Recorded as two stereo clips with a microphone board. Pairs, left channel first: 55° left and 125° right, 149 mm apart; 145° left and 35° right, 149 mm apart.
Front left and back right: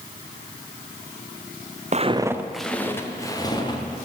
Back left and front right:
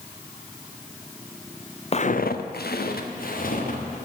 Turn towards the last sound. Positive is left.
turn(degrees=115)